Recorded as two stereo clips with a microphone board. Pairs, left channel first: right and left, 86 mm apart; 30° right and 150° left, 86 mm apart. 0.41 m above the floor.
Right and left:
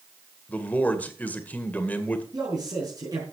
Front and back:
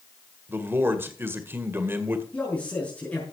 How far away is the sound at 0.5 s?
About 1.9 m.